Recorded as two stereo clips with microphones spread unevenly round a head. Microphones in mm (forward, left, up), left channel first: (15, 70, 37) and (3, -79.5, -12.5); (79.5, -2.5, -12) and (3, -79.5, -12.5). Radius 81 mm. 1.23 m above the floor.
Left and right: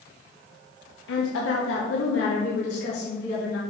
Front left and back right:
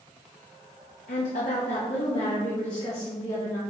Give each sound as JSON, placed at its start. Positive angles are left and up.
{"t": 1.1, "sound": "a woman speaking", "azimuth_deg": 70, "distance_m": 1.0}